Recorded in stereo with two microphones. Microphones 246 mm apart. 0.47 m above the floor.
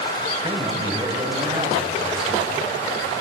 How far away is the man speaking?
About 3.5 m.